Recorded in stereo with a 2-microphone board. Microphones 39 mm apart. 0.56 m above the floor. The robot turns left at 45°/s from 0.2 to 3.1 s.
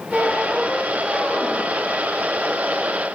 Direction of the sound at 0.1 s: 160° right.